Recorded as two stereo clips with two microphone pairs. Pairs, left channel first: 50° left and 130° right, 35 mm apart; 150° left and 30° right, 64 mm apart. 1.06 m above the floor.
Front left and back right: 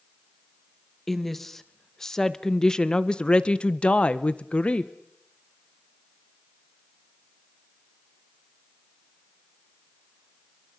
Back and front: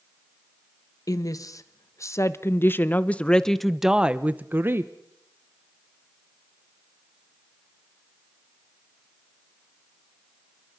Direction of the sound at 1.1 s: 135° left.